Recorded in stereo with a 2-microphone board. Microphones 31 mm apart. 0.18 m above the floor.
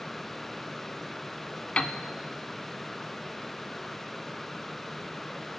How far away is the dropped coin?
I don't hear a dropped coin.